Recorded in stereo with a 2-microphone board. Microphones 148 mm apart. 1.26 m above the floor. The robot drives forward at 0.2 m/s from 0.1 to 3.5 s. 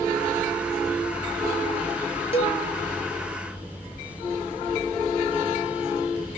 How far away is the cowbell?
About 0.9 m.